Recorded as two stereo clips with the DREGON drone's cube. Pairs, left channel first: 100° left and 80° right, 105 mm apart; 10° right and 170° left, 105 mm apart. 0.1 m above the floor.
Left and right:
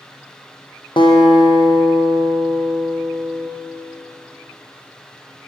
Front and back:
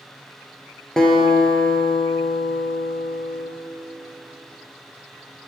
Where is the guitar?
75° left, 0.7 m.